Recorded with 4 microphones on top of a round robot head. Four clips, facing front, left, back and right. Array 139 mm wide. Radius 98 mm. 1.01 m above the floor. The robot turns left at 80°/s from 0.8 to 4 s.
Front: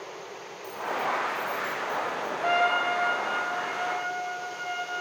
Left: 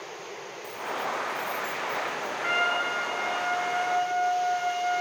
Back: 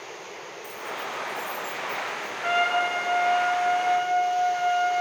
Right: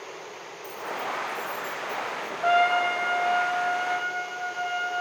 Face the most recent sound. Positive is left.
turn(degrees=170)